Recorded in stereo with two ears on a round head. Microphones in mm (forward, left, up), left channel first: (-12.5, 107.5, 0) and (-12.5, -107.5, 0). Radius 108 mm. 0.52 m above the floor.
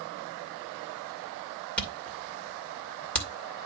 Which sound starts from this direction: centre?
A camera shutter, at 1.8 s.